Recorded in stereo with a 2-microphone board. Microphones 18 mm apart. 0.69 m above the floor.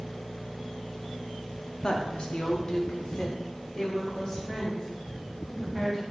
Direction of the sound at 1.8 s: 50° left (ahead or behind).